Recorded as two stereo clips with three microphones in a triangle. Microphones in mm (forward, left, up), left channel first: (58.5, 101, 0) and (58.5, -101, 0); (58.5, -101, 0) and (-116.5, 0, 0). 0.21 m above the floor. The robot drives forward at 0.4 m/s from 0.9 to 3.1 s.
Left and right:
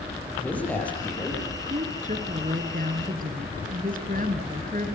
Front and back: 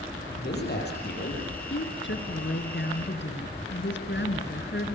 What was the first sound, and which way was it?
A man speaking, 5° left.